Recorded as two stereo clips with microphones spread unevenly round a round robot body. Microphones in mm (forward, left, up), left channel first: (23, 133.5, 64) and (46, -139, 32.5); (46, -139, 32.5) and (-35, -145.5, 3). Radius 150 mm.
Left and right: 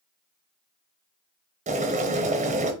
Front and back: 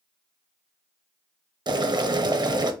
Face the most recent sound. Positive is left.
turn(degrees=-150)